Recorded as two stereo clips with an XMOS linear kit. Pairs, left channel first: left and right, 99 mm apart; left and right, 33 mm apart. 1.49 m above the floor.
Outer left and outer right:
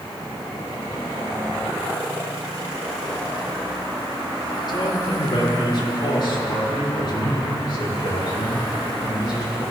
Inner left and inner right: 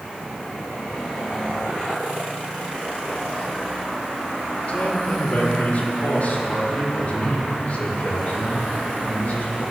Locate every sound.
4.7 s a man speaking: 45° left (ahead or behind), 3 m; by 9.6 s 50° left (ahead or behind), 10 m